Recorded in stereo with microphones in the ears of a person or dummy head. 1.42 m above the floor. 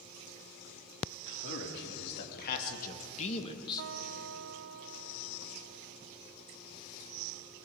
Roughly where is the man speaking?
Left.